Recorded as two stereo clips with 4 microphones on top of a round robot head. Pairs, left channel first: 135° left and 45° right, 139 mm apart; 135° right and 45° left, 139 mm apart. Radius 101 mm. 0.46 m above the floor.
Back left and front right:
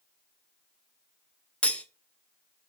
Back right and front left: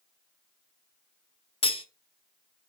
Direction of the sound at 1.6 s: 145° right.